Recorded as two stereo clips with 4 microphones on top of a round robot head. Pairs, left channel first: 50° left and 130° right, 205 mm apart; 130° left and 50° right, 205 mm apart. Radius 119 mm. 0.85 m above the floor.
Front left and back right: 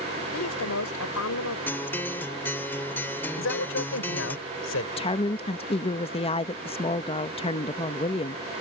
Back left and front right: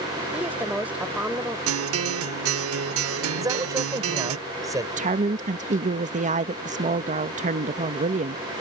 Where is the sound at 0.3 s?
35° left.